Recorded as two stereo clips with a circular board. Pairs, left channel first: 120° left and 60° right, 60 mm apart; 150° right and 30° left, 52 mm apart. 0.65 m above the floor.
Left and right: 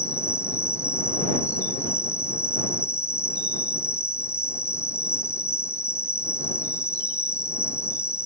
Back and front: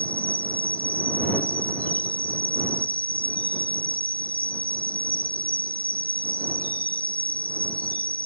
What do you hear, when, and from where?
0.0 s an insect: 155° left